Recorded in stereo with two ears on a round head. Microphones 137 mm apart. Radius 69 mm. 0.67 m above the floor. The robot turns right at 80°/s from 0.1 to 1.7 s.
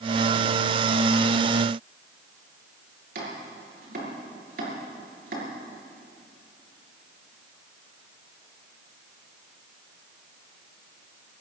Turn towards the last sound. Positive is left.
turn(degrees=-70)  # may be behind; listen again after turning